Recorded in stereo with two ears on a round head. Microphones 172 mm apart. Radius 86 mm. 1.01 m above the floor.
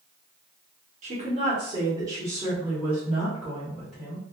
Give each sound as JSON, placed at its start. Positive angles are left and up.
{"t": 1.0, "sound": "a woman speaking", "side_deg": -35, "distance_m": 1.0}